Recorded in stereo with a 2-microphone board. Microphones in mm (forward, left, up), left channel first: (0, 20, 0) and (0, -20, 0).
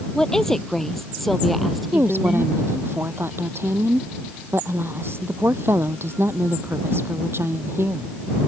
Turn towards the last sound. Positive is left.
turn(degrees=-75)  # may be behind; listen again after turning